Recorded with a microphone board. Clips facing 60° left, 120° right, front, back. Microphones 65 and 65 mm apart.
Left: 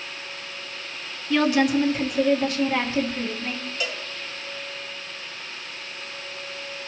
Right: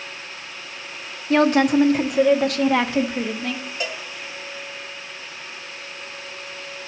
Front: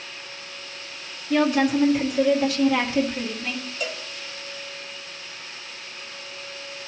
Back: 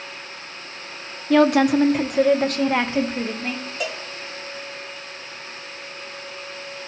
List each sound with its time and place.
1.3 s a woman speaking: 165° right, 0.9 m; by 3.6 s 130° right, 1.8 m
3.8 s a cowbell: straight behind, 1.6 m